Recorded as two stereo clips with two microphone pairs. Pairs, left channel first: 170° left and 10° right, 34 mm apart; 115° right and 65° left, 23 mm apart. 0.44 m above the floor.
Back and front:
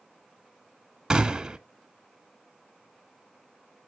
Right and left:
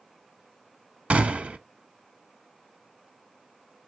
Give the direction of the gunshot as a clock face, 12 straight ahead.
10 o'clock.